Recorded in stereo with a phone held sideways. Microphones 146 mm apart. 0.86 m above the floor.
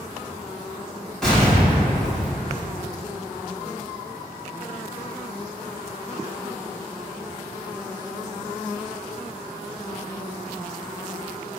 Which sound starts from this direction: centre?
An explosion, at 1.2 s.